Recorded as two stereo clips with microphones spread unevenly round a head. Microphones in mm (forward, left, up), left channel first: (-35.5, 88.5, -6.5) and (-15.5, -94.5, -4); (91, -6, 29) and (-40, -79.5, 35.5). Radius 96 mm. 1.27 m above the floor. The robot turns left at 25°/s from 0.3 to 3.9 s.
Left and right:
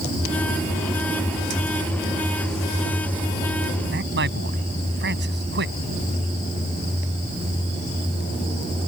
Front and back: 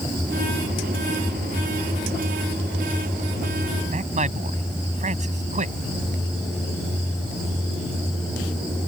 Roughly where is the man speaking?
Right.